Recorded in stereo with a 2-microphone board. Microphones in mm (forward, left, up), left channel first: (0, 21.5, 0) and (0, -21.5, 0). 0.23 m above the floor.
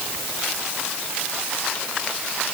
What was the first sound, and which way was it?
Only background noise.